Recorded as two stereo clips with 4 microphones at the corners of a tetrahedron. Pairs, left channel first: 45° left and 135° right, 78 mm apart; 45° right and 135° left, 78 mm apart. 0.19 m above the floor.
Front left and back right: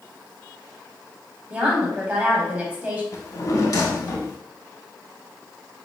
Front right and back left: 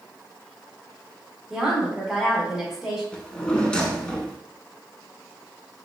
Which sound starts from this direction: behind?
A woman speaking, at 1.5 s.